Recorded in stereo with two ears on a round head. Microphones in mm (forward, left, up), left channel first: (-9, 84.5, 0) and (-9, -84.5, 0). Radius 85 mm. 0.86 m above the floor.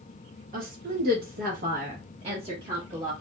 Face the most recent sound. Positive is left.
turn(degrees=-15)  # may be behind; listen again after turning